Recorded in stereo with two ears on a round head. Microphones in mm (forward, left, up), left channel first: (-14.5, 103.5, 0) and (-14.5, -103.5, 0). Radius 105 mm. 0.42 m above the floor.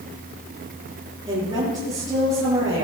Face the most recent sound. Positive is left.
turn(degrees=-15)  # may be behind; listen again after turning